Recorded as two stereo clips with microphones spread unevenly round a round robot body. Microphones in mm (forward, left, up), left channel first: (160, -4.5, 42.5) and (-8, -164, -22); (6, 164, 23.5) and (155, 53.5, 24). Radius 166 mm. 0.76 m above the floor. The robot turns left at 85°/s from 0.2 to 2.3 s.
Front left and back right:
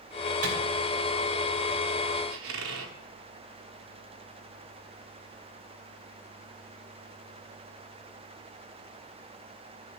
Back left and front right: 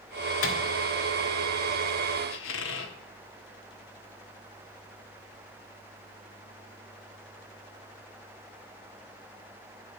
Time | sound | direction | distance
0.4 | a microwave | 160° left | 1.7 m
2.3 | a squeak | straight behind | 0.9 m